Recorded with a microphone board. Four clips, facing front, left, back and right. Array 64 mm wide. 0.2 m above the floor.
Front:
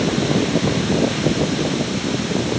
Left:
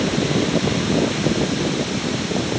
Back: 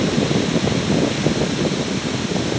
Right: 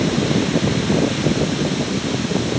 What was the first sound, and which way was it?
Only background noise.